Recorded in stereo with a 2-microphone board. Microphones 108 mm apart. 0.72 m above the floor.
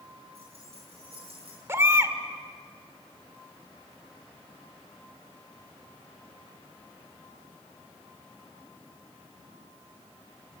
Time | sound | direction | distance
0.3 | keys jangling | 65° right (ahead or behind) | 10 m
1.7 | a baby crying | 25° right (ahead or behind) | 1.5 m